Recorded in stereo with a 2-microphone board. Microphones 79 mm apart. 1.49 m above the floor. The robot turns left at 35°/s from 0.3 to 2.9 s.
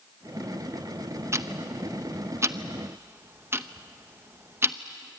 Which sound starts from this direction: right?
Ticking, at 1.3 s.